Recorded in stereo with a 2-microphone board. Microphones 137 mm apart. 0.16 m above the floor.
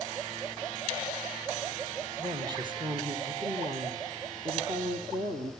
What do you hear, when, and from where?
2.2 s a woman speaking: 35° right (ahead or behind), 5 m; by 5.5 s 50° right (ahead or behind), 4.5 m